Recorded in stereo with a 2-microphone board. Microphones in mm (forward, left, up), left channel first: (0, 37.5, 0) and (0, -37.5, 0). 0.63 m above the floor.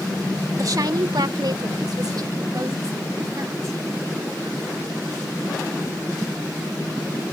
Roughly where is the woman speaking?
Right.